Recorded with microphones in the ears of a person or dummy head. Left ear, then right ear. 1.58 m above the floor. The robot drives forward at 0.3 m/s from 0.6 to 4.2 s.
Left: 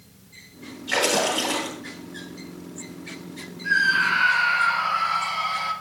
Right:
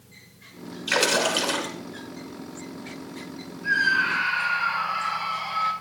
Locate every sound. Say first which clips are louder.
0.9 s a splash: even; 70° right (ahead or behind), 5.5 m
3.6 s a scream: left 2 dB; 30° right (ahead or behind), 8.5 m